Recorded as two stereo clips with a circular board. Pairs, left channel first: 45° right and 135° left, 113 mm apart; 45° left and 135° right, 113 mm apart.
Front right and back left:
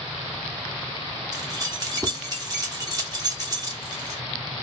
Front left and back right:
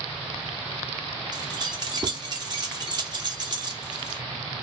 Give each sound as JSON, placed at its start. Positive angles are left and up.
{"t": 1.3, "sound": "keys jangling", "azimuth_deg": -175, "distance_m": 0.7}